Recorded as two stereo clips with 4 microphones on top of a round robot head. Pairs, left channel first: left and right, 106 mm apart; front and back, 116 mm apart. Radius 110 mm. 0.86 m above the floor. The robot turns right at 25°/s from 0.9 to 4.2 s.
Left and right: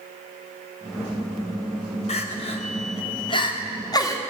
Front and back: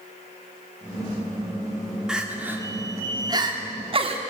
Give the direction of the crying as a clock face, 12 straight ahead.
9 o'clock.